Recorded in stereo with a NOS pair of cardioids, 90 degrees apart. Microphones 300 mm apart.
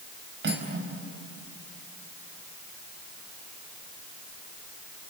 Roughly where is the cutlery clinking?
Ahead right.